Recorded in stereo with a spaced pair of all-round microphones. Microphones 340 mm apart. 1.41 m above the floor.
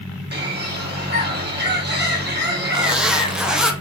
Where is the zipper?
Centre (ahead or behind), 0.5 m.